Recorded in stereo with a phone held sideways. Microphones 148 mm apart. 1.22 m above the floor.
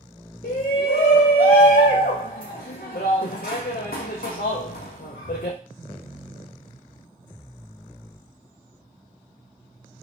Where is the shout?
80° left, 0.6 m.